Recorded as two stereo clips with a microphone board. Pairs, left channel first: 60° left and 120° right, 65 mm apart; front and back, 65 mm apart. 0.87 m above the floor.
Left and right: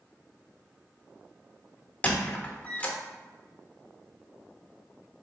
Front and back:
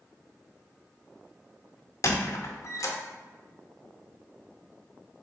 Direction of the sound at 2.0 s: 5° right.